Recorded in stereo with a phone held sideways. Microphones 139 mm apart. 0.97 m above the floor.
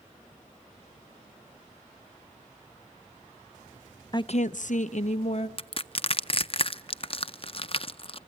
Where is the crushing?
40° left (ahead or behind), 0.6 m.